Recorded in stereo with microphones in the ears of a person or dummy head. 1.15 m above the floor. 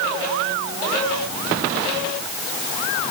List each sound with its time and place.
Only background noise.